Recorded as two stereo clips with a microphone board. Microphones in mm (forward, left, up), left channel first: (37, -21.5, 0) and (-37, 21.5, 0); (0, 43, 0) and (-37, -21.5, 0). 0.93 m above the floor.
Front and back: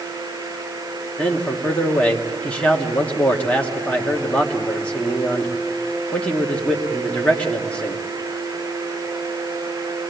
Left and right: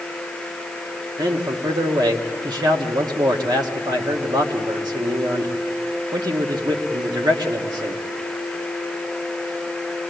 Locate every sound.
1.2 s a man speaking: 105° right, 1.8 m